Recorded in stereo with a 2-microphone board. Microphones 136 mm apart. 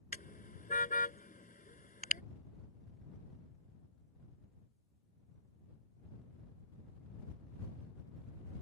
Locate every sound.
0.1 s a car horn: 90° left